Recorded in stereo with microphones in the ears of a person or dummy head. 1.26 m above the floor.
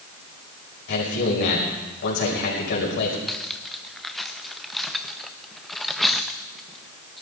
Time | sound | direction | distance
0.9 | a man speaking | 60° left (ahead or behind) | 5 m
3.3 | cutlery clinking | centre (ahead or behind) | 0.7 m